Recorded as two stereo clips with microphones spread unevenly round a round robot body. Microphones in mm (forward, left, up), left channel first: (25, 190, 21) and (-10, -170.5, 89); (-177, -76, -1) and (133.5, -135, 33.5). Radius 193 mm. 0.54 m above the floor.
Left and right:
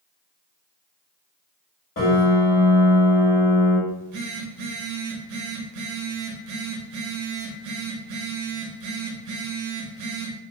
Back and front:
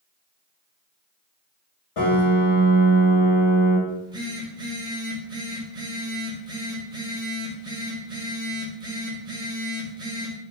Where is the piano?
140° left, 1.4 m.